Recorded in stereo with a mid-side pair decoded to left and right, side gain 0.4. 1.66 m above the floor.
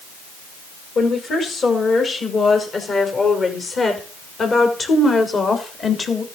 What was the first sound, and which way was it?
A woman speaking, 55° left.